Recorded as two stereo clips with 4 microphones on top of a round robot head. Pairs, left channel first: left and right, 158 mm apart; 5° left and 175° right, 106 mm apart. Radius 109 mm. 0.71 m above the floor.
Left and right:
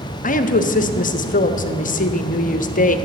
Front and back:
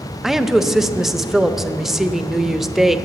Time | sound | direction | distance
0.2 | a woman speaking | 95° left | 1.0 m